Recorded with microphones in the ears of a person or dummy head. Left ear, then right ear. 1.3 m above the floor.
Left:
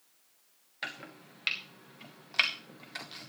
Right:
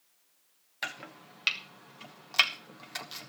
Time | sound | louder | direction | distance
0.8 | chopping | right 2 dB | 30° right (ahead or behind) | 1.1 m